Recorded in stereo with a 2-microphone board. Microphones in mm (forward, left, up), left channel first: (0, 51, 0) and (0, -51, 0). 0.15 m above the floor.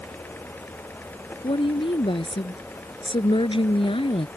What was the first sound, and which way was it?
A woman speaking, 55° left (ahead or behind).